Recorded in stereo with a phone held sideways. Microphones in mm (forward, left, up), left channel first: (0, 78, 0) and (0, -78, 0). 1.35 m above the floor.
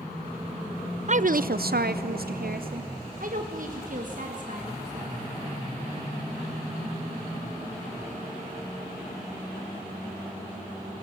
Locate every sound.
1.1 s a woman speaking: 50° right (ahead or behind), 0.5 m; by 5.2 s 55° right (ahead or behind), 2.5 m